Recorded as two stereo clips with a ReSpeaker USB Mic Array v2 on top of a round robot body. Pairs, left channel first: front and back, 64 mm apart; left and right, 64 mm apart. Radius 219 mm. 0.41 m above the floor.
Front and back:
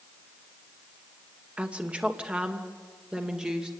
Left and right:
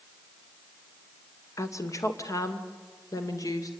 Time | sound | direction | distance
1.6 | a woman speaking | 110° left | 2 m